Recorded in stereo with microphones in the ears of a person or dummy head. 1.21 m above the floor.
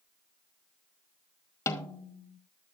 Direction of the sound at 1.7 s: 15° left (ahead or behind).